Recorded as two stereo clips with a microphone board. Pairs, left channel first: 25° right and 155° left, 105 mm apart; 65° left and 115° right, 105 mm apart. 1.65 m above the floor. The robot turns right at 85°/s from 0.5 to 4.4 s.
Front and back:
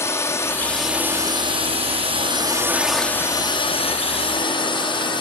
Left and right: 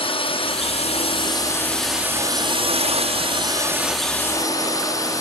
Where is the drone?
40° left; by 5.2 s 10° left.